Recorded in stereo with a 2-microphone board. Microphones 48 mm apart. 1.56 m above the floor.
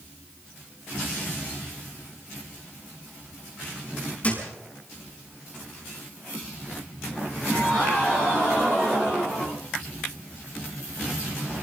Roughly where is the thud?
Left.